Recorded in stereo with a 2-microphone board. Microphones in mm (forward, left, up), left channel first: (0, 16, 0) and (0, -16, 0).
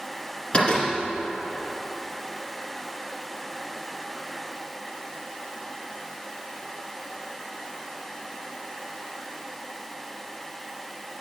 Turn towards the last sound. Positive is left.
turn(degrees=35)  # may be behind; listen again after turning